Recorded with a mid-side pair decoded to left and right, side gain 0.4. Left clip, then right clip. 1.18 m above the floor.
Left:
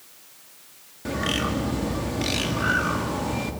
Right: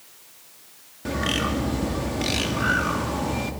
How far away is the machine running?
No machine running in this recording.